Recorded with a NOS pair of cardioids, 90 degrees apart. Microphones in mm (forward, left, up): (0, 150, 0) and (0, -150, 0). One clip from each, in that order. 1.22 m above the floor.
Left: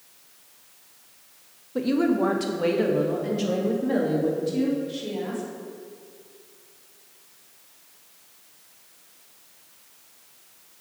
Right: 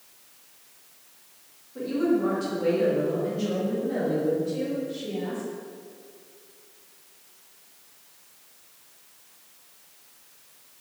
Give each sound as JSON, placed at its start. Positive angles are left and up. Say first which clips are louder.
{"t": 1.8, "sound": "a woman speaking", "louder": "left 2 dB", "azimuth_deg": 70, "distance_m": 1.1}